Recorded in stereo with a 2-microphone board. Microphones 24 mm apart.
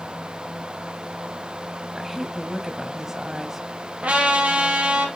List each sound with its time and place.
1.9 s a woman speaking: 15° right (ahead or behind), 1.1 m
4.0 s a trumpet: 65° right (ahead or behind), 2 m